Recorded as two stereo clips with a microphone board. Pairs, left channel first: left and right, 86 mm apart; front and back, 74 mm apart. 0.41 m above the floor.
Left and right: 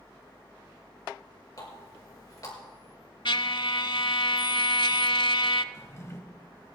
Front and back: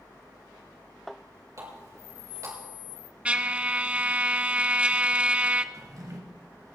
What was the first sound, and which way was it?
A running tap, 135° left.